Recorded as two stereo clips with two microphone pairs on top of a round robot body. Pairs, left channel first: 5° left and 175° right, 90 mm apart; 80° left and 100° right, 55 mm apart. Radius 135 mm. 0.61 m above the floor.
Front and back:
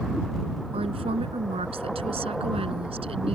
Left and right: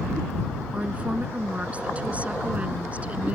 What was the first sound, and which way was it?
A woman speaking, 165° right.